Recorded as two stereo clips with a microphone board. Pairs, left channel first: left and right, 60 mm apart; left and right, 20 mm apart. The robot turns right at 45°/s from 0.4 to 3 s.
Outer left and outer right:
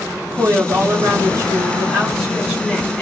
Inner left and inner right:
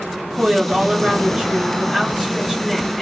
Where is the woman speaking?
115° right, 1.5 m; by 3.0 s straight ahead, 1.5 m.